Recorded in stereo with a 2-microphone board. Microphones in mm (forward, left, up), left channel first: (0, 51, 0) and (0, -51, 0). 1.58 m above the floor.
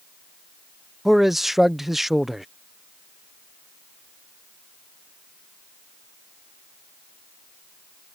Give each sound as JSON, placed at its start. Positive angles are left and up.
{"t": 1.1, "sound": "a man speaking", "side_deg": -5}